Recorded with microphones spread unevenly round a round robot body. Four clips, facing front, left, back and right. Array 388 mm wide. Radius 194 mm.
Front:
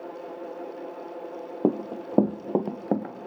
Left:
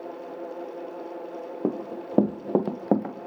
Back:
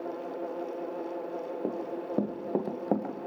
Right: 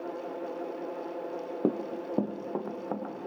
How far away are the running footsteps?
About 1.0 m.